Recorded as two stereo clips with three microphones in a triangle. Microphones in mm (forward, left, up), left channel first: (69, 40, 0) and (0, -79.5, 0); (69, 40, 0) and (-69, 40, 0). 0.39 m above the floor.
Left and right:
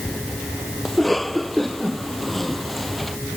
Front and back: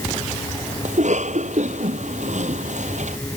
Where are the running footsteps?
I don't hear running footsteps.